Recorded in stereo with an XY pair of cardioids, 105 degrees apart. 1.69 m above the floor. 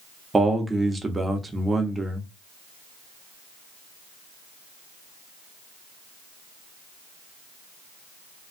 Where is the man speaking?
20° right, 0.8 m.